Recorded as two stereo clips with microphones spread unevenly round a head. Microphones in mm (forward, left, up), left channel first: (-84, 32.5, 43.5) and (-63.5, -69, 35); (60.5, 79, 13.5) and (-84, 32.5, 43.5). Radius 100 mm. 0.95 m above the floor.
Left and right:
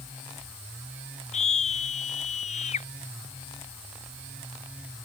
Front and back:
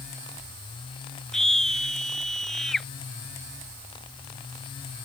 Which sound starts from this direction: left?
A scream, at 1.3 s.